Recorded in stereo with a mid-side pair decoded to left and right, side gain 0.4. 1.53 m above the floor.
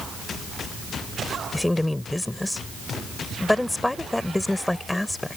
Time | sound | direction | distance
1.5 | a woman speaking | 10° left | ?